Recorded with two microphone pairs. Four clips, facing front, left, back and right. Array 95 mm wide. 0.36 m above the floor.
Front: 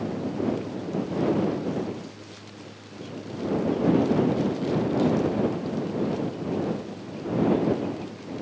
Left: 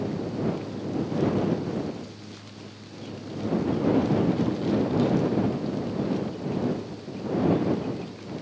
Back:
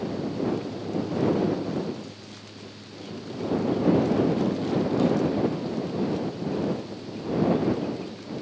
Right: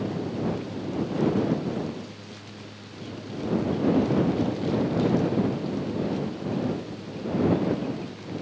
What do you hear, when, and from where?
Only background noise.